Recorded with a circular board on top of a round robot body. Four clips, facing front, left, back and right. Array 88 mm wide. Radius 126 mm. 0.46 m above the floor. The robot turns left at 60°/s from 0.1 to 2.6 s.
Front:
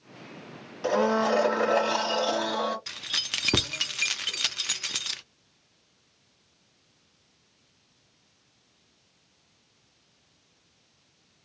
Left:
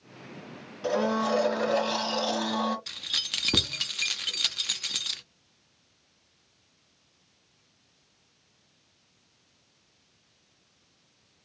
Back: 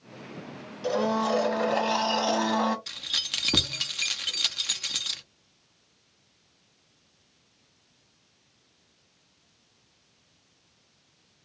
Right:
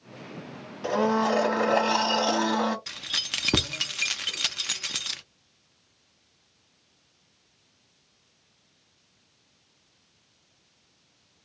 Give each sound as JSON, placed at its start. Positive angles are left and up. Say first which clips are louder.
{"t": 0.8, "sound": "a blender", "louder": "right 2 dB, front 2 dB", "azimuth_deg": -15, "distance_m": 1.4}
{"t": 2.9, "sound": "keys jangling", "louder": "right 3 dB, front 2 dB", "azimuth_deg": -45, "distance_m": 0.7}